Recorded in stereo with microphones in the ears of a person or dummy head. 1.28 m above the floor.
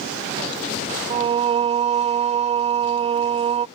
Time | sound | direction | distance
1.1 | singing | 30° right (ahead or behind) | ?